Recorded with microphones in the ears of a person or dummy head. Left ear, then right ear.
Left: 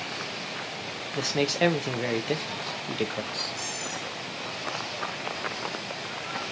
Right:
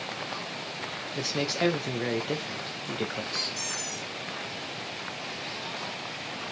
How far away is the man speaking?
About 0.7 m.